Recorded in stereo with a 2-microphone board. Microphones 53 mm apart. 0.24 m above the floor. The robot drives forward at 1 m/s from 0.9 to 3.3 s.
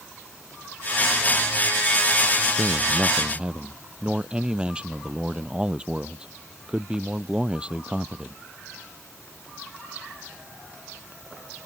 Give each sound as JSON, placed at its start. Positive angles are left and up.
{"t": 2.6, "sound": "a man speaking", "side_deg": -20}